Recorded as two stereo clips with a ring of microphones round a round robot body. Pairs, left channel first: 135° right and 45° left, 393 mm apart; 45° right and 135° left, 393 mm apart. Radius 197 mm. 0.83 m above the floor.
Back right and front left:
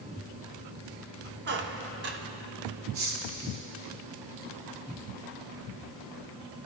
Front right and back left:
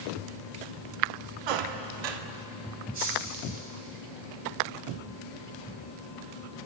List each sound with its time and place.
1.5 s a squeak: 110° left, 0.7 m
2.9 s cutlery clinking: 65° left, 5 m